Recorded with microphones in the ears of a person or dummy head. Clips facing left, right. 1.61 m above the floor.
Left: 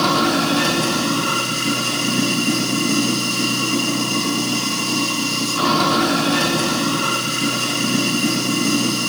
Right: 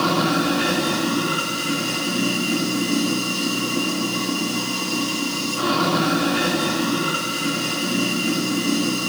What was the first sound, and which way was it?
Running water, 80° left.